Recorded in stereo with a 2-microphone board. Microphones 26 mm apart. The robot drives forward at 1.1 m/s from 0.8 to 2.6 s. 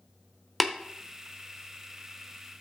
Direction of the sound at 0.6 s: Centre (ahead or behind).